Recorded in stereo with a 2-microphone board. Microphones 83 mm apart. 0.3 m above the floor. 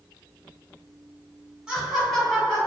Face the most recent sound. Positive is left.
turn(degrees=15)  # may be behind; listen again after turning